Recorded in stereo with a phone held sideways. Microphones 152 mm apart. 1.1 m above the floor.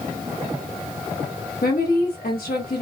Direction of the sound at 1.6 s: 75° left (ahead or behind).